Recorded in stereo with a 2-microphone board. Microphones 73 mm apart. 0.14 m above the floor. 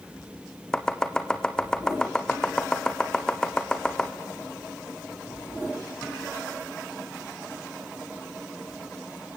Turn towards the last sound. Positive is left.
turn(degrees=10)  # may be behind; listen again after turning